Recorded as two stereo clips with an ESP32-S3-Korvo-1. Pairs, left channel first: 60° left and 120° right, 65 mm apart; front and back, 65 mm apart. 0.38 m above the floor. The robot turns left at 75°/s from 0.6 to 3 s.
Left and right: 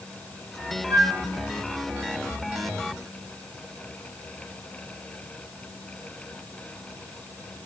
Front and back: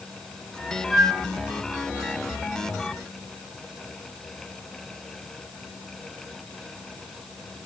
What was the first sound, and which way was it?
A flute, 80° right.